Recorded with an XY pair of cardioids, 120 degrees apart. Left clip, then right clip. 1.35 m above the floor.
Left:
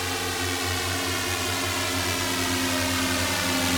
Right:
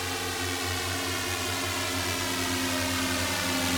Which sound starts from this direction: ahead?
A drone, at 0.0 s.